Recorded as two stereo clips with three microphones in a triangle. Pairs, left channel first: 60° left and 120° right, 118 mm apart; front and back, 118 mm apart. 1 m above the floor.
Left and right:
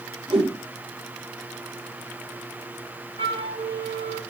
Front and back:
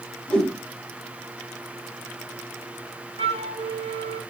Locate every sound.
0.3 s a whoosh: 80° right, 3.5 m
3.2 s a flute: 150° right, 1.4 m